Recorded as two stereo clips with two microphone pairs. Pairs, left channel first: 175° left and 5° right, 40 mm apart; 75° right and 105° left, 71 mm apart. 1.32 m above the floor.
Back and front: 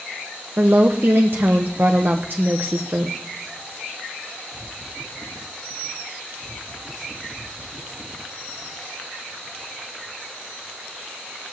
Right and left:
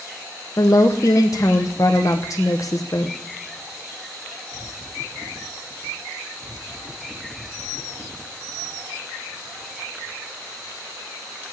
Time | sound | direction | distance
0.6 | a woman speaking | 40° right | 1.2 m